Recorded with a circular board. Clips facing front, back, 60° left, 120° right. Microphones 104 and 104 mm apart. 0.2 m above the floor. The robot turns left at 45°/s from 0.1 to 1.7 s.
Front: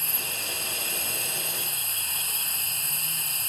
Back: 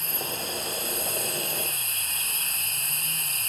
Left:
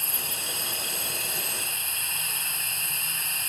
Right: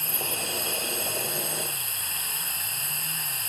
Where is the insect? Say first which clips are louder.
Back 4 dB, right 4 dB; 10° left, 5.5 m; by 3.5 s 60° right, 5.5 m.